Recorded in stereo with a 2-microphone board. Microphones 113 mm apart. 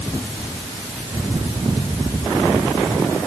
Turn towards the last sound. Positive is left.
No sound to turn to.